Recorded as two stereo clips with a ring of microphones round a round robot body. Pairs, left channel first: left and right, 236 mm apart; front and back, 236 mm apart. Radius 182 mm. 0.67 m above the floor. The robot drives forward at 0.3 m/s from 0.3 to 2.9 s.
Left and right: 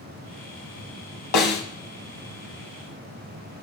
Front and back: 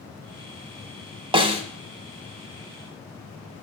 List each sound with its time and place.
1.3 s a snare drum: 110° left, 1.2 m; by 1.6 s 115° left, 1.2 m